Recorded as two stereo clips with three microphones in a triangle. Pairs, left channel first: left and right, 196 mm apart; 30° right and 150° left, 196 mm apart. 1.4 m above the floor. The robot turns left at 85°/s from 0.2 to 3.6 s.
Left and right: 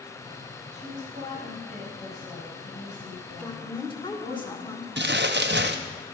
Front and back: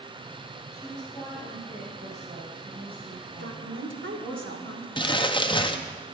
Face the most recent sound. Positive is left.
turn(degrees=-95)